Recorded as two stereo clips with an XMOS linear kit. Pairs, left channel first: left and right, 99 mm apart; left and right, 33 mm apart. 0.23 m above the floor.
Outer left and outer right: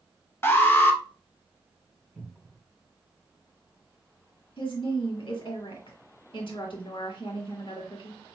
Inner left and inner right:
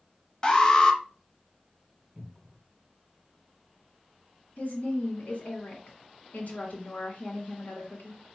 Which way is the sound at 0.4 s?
25° left (ahead or behind).